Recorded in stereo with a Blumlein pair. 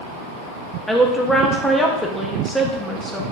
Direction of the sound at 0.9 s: Straight ahead.